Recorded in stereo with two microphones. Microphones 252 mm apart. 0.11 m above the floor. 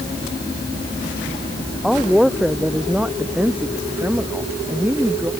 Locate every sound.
1.8 s a woman speaking: centre (ahead or behind); by 5.3 s 10° right (ahead or behind)